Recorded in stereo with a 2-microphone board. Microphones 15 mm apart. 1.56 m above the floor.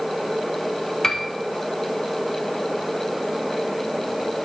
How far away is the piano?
About 0.8 m.